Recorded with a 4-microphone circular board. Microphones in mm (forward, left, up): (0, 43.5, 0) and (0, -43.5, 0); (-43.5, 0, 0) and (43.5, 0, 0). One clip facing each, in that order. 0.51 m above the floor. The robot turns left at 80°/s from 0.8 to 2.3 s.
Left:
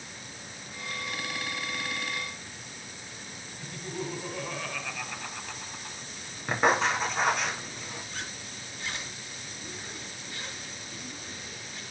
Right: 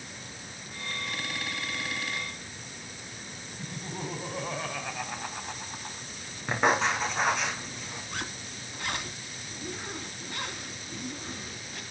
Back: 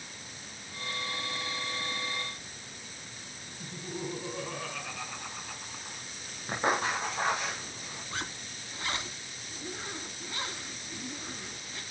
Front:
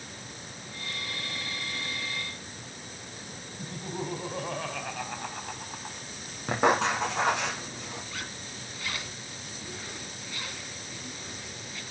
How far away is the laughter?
About 3.5 m.